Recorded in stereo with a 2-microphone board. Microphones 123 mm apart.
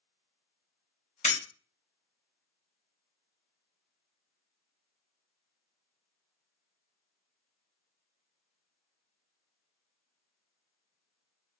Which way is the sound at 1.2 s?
70° left (ahead or behind).